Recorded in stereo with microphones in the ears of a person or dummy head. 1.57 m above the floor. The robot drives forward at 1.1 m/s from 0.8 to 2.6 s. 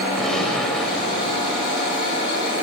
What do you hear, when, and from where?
0.2 s a gunshot: centre (ahead or behind), 7 m